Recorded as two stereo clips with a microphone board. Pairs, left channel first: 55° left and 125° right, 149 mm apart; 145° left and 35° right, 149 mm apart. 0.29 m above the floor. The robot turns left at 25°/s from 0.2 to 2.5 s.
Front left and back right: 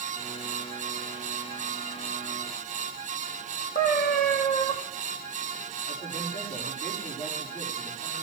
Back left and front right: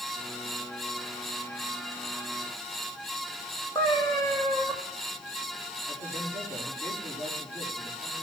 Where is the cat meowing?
80° left, 2.5 m.